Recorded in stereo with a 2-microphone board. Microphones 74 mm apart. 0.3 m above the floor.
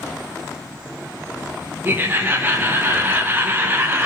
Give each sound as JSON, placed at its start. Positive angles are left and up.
{"t": 1.8, "sound": "laughter", "side_deg": -25, "distance_m": 1.0}